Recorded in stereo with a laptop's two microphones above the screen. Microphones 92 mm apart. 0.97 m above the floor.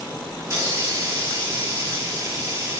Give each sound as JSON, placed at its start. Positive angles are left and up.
{"t": 0.4, "sound": "a hiss", "side_deg": -30, "distance_m": 1.4}